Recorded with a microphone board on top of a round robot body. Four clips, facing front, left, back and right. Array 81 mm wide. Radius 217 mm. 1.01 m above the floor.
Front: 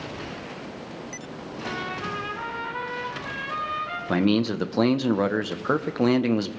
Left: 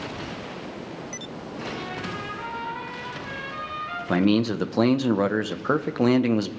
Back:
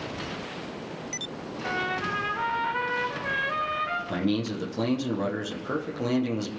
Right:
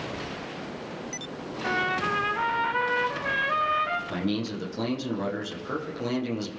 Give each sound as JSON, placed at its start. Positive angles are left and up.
{"t": 1.6, "sound": "a trumpet", "azimuth_deg": -100, "distance_m": 2.5}
{"t": 4.1, "sound": "a man speaking", "azimuth_deg": 50, "distance_m": 1.5}